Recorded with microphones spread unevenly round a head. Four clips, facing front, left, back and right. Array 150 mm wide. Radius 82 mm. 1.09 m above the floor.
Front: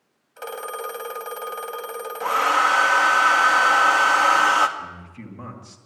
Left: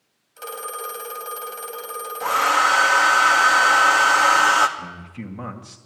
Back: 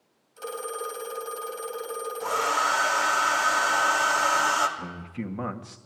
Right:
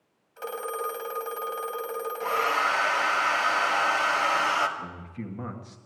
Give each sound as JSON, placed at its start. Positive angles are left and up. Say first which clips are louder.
{"t": 0.4, "sound": "a phone ringing", "louder": "even, front 2 dB", "azimuth_deg": 0, "distance_m": 3.5}
{"t": 2.2, "sound": "a hair dryer", "louder": "left 7 dB, front 6 dB", "azimuth_deg": 45, "distance_m": 2.0}
{"t": 4.8, "sound": "a man speaking", "louder": "left 3 dB, back 2 dB", "azimuth_deg": 165, "distance_m": 1.9}